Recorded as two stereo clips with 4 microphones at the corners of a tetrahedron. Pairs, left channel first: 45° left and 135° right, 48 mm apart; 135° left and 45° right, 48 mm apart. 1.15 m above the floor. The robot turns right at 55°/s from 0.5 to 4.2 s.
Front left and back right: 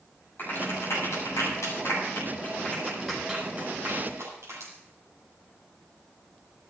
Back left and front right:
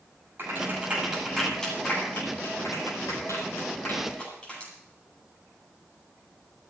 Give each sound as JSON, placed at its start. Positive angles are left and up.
{"t": 0.4, "sound": "a clap", "azimuth_deg": 0, "distance_m": 10.0}